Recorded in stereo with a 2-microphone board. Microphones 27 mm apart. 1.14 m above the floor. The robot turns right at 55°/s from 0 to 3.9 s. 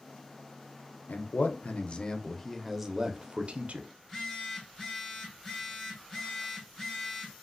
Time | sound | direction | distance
1.1 | a man speaking | 95° left | 0.6 m
4.0 | a phone buzzing | 20° left (ahead or behind) | 0.9 m